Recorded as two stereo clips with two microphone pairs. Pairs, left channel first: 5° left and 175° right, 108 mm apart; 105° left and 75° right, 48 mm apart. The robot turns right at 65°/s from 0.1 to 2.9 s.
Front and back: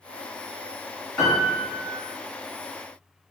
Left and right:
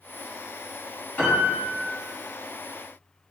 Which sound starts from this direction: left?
A piano, at 1.2 s.